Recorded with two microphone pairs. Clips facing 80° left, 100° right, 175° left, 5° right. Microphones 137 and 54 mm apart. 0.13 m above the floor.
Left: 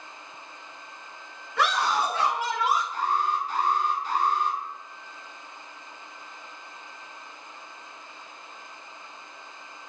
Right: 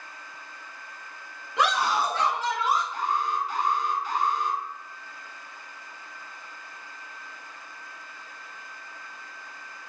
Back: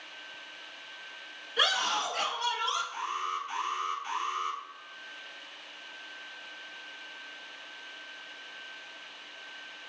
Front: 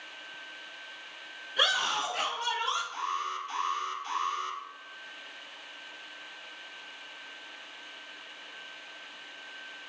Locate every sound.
1.6 s a scream: 105° right, 1.2 m; by 2.8 s 30° left, 1.4 m
2.9 s an alarm: 110° left, 1.5 m